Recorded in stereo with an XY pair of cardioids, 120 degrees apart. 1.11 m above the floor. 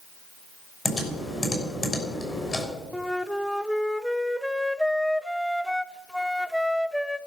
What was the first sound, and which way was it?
Typing on a keyboard, 20° left.